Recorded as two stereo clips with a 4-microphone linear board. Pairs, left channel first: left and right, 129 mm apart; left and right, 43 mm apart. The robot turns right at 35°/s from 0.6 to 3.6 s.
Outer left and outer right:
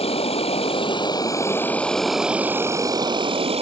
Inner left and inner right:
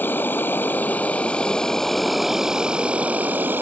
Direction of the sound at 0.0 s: 130° left.